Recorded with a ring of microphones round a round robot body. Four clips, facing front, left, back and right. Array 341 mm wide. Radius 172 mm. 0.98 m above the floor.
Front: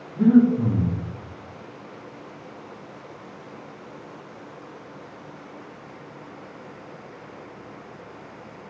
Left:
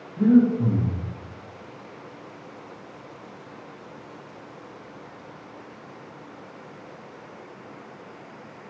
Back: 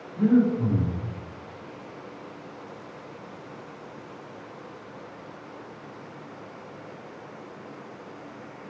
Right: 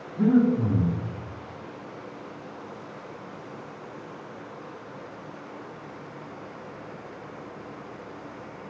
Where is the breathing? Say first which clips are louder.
Left 3 dB, front 4 dB; 35° right, 3 m.